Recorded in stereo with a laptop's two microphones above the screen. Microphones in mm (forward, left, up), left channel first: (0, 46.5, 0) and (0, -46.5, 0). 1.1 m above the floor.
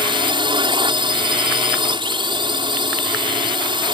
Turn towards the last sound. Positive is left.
turn(degrees=-60)  # may be behind; listen again after turning